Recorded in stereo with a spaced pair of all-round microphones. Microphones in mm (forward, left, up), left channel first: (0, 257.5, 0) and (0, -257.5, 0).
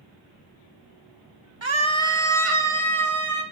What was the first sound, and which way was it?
A scream, 60° right (ahead or behind).